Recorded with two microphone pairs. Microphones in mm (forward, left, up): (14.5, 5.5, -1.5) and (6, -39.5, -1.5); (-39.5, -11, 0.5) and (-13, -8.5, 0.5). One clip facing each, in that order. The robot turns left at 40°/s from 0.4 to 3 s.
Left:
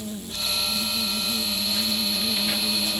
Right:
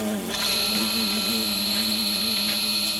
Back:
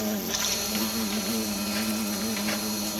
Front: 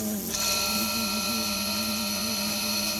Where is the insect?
115° right; by 3.0 s 140° left.